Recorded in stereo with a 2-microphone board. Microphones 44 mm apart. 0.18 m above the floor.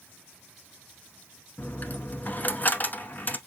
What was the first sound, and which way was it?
A dropped coin, 40° left (ahead or behind).